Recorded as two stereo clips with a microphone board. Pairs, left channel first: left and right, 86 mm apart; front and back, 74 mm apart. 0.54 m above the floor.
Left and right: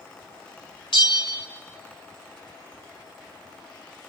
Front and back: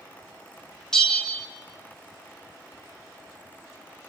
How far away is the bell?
About 1.3 m.